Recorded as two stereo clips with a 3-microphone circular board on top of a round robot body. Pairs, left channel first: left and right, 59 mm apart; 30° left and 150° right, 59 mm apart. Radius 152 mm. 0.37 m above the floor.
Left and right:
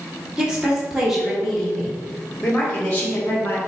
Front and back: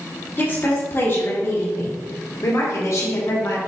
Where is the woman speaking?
15° right, 2 m; by 3.6 s 40° left, 2 m.